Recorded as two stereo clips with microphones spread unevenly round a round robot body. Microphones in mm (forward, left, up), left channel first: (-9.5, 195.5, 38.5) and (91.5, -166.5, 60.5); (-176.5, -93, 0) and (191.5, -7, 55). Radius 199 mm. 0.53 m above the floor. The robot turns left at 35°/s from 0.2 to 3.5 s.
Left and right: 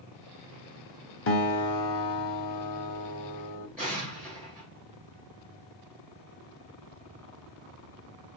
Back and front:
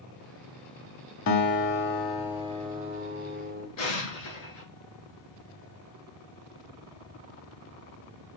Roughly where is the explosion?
Behind.